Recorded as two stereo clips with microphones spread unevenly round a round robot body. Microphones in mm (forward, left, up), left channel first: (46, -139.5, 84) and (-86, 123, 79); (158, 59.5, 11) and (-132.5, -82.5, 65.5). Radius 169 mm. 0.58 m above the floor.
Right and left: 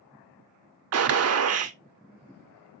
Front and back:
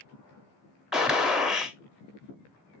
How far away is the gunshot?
About 0.8 m.